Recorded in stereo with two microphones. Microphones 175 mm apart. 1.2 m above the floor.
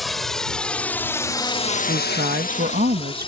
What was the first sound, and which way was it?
A drone, centre (ahead or behind).